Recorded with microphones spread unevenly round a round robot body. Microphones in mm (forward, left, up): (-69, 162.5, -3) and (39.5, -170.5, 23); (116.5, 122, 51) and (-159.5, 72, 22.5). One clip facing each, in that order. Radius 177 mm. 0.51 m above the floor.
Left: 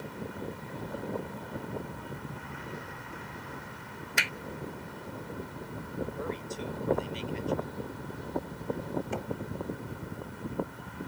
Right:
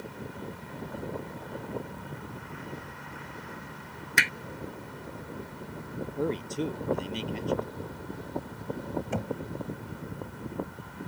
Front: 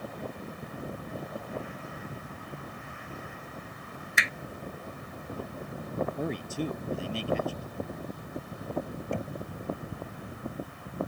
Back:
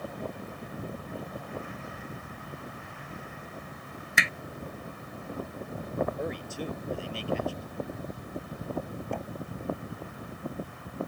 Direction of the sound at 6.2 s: 20° right.